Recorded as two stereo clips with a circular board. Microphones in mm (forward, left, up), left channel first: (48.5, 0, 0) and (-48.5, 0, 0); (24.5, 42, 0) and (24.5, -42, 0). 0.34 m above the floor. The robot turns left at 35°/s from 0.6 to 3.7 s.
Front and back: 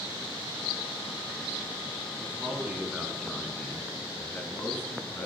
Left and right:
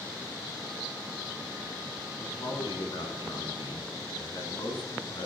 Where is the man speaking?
125° left, 3 m; by 5.3 s 70° left, 3 m.